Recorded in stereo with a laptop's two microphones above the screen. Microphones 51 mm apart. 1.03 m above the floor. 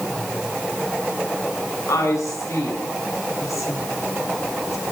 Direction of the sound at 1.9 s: 80° left.